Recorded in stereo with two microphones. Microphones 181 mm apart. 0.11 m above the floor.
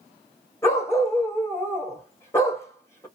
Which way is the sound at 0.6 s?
15° left (ahead or behind).